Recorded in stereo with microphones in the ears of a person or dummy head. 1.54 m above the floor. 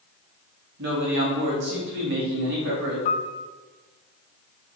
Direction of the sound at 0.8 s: 60° right (ahead or behind).